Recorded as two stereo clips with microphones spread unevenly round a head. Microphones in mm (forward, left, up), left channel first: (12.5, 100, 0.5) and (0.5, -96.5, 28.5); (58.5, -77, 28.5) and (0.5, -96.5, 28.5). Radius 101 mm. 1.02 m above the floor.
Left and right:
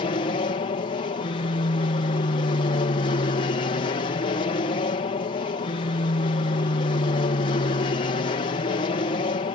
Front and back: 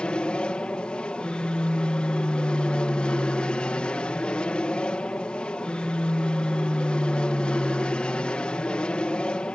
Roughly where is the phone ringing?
No phone ringing in this recording.